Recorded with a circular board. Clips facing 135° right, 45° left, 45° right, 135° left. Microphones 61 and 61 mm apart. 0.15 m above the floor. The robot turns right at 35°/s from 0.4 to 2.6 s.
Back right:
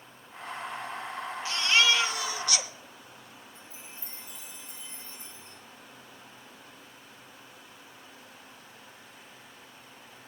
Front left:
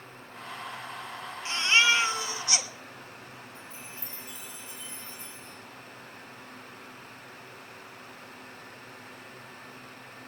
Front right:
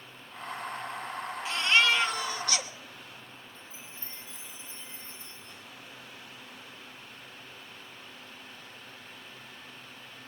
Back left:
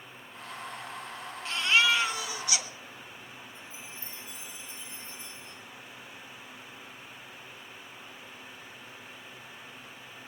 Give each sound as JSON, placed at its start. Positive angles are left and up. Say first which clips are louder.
{"t": 1.4, "sound": "a baby crying", "louder": "front left 1 dB, even", "azimuth_deg": 40, "distance_m": 1.2}
{"t": 3.5, "sound": "a chime", "louder": "front left 4 dB, back left 2 dB", "azimuth_deg": 75, "distance_m": 7.5}